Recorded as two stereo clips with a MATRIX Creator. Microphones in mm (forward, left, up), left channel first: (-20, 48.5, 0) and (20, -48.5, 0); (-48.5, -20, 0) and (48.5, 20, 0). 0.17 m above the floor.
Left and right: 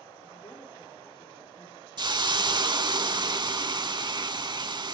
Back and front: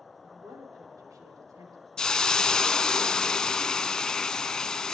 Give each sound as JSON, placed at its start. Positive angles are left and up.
{"t": 0.2, "sound": "a woman speaking", "azimuth_deg": 75, "distance_m": 5.5}
{"t": 2.0, "sound": "a hiss", "azimuth_deg": -75, "distance_m": 0.5}